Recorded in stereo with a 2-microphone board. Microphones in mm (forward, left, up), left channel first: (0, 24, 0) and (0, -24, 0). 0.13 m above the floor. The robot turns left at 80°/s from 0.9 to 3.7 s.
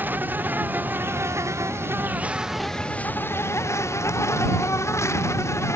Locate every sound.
0.0 s an insect: 45° right; by 5.8 s 90° left